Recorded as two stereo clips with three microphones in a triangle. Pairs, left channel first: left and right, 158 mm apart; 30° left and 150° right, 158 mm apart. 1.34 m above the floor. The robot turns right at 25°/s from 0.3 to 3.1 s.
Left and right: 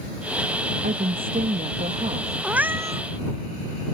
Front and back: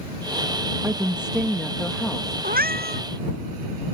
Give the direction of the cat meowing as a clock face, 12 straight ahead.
6 o'clock.